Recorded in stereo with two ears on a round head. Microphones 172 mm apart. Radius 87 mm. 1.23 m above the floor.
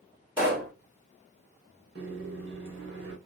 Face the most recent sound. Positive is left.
turn(degrees=-60)  # may be behind; listen again after turning